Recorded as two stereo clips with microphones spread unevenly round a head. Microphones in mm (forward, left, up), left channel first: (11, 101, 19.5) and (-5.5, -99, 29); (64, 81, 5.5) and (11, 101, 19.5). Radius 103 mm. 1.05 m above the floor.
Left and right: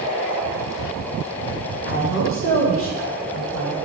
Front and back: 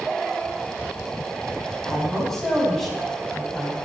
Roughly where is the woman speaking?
Ahead left.